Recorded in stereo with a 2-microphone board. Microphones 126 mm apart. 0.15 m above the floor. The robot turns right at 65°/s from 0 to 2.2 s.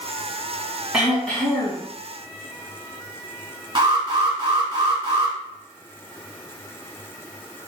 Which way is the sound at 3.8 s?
35° right (ahead or behind).